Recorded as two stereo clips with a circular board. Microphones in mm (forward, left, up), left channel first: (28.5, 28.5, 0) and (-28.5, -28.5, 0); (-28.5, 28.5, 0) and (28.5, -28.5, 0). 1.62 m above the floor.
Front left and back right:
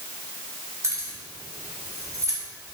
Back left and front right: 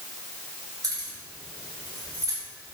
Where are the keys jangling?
85° right, 3 m; by 2.4 s 90° right, 2.5 m.